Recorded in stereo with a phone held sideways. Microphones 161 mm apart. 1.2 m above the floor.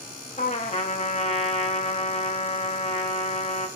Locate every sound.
0.4 s a trumpet: 45° left (ahead or behind), 0.7 m